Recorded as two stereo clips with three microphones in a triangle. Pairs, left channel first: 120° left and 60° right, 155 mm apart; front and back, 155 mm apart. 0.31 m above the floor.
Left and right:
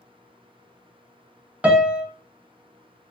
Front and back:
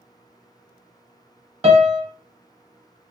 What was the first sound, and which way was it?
A piano, 140° right.